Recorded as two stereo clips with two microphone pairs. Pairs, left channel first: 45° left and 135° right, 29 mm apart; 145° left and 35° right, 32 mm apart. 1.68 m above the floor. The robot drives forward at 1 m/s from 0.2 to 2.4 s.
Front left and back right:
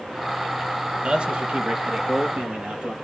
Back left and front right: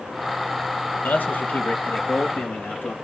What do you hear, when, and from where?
1.0 s a man speaking: 165° left, 1.6 m; by 2.9 s 175° left, 3 m